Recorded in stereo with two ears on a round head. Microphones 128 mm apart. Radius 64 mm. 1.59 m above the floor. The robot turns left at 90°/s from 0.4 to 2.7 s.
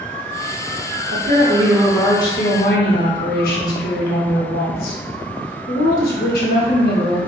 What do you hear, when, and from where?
1.1 s a woman speaking: 110° right, 0.7 m; by 7.2 s 105° left, 0.7 m